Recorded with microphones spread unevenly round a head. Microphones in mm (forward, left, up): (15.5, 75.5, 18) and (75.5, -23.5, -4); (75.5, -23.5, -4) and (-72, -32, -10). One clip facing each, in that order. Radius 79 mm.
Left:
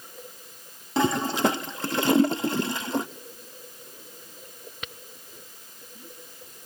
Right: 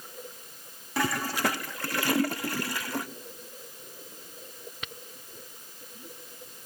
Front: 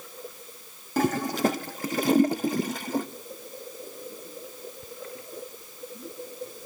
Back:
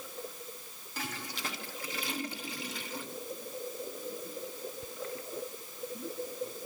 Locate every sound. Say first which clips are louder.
1.0 s a toilet flushing: left 6 dB, front 17 dB; 50° left, 0.7 m